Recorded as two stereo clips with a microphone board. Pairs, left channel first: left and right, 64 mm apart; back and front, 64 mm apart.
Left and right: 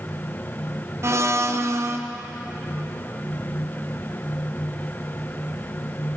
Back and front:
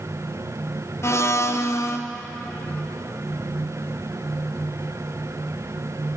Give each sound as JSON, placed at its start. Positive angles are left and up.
{"t": 1.0, "sound": "a blender", "azimuth_deg": -135, "distance_m": 0.5}